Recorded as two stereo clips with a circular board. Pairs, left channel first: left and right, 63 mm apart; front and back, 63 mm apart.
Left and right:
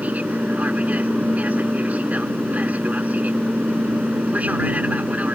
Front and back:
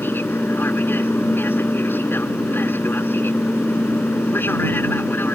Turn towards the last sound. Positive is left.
turn(degrees=-35)